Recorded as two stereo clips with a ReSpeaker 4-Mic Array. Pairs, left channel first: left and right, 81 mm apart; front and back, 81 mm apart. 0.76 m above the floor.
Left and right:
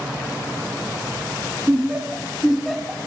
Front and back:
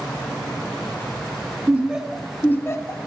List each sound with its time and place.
1.7 s laughter: 135° right, 0.7 m; by 3.0 s 5° left, 0.9 m